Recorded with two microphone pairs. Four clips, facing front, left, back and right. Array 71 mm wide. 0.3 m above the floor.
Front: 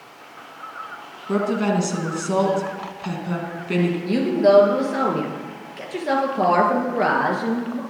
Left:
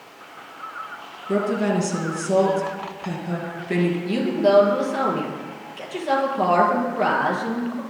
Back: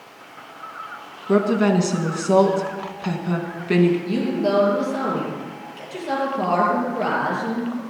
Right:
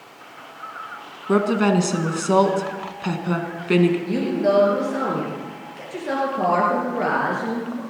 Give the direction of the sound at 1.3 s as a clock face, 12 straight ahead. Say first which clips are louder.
Right 3 dB, back 3 dB; 3 o'clock.